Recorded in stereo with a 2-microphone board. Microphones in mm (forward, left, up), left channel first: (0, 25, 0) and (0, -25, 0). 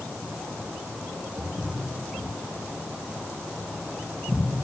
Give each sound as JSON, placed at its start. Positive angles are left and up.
{"t": 1.4, "sound": "footsteps", "side_deg": -85, "distance_m": 4.0}